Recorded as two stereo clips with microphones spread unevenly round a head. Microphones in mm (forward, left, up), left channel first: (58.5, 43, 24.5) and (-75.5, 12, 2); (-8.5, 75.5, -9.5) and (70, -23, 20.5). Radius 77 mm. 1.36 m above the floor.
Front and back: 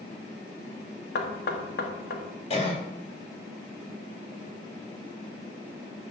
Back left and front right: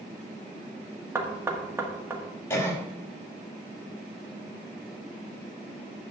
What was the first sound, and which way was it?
Knocking, 15° left.